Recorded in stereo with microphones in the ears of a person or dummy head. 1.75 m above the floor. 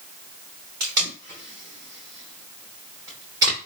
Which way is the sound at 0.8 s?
15° right (ahead or behind).